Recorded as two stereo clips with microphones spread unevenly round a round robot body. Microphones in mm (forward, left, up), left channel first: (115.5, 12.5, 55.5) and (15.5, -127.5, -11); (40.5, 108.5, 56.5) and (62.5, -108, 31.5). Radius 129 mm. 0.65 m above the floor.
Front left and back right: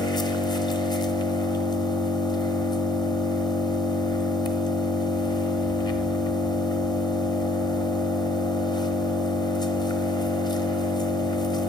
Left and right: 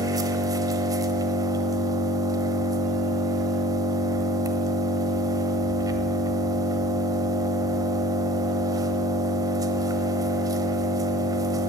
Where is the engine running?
10° right, 1.0 m.